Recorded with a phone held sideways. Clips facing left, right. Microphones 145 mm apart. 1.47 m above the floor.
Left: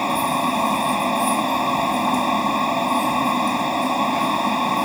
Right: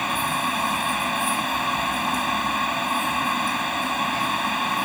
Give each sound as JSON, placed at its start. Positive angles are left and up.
{"t": 0.0, "sound": "a fan", "side_deg": 35}